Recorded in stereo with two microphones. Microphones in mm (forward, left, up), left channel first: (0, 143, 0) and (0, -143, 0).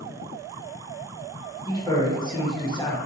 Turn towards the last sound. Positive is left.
turn(degrees=15)  # may be behind; listen again after turning